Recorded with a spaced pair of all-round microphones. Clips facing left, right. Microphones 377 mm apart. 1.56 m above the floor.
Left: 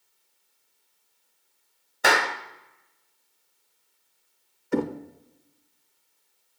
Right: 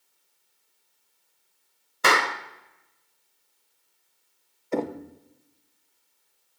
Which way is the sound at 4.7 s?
25° left (ahead or behind).